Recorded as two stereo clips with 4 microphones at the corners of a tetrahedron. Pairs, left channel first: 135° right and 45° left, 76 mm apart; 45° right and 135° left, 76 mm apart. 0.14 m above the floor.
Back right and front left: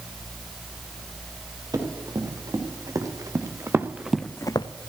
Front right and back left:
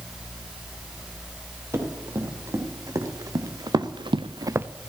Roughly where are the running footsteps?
Left.